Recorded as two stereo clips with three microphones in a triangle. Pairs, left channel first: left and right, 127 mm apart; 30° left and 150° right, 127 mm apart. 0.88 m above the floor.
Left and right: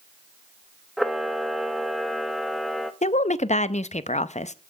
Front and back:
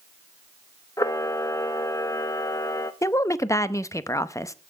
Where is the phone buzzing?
No phone buzzing in this recording.